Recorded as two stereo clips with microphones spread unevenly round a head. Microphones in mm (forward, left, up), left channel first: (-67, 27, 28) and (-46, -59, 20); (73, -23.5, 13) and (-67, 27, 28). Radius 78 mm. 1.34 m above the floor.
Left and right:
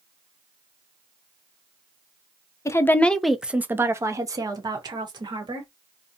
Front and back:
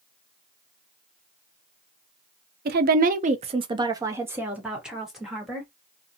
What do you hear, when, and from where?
2.6 s a woman speaking: 160° left, 0.6 m; by 5.7 s 105° right, 1.5 m